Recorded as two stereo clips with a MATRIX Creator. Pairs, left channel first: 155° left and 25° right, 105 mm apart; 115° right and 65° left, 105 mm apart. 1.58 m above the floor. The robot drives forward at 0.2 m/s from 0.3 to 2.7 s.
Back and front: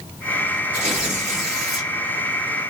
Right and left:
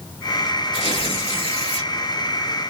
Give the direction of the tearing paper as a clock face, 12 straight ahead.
3 o'clock.